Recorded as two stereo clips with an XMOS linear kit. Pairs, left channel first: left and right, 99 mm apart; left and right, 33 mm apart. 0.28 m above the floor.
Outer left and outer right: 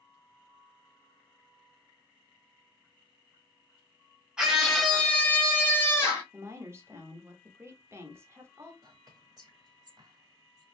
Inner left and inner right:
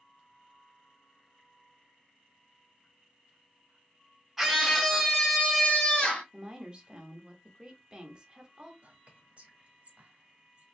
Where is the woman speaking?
30° right (ahead or behind), 1.0 m.